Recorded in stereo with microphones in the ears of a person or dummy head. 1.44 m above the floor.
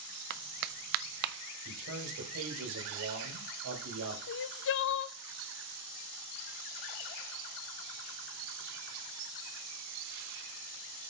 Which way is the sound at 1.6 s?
80° right.